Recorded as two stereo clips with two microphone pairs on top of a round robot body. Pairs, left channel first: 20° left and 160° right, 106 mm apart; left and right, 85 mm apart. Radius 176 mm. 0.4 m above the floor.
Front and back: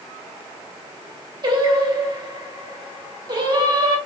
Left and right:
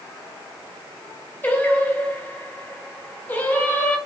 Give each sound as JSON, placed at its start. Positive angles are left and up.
{"t": 1.4, "sound": "singing", "azimuth_deg": 155, "distance_m": 1.7}